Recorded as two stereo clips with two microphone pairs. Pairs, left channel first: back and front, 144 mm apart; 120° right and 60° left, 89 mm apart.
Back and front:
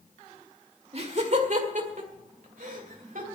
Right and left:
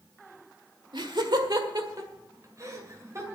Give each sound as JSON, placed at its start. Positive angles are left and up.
{"t": 0.9, "sound": "laughter", "azimuth_deg": 40, "distance_m": 1.7}